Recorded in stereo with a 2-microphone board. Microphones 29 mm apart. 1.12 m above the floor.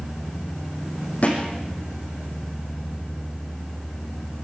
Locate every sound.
1.2 s a thud: 50° left (ahead or behind), 7.5 m